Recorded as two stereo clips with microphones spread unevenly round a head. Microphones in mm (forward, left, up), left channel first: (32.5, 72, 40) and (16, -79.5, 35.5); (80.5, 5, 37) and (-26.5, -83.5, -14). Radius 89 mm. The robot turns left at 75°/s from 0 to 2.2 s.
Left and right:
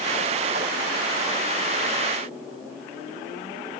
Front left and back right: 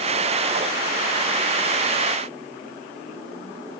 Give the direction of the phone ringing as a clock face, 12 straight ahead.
I don't hear a phone ringing.